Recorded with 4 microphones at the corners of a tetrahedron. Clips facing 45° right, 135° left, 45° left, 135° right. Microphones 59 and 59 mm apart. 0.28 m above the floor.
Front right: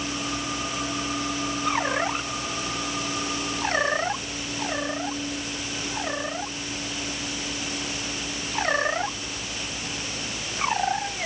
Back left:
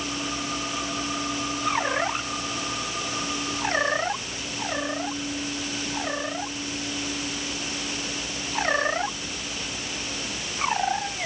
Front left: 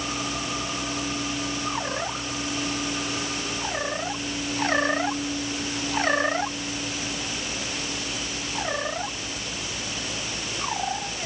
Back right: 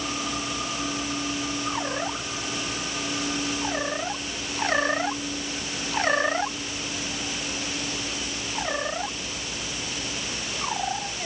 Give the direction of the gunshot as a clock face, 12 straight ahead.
I don't hear a gunshot.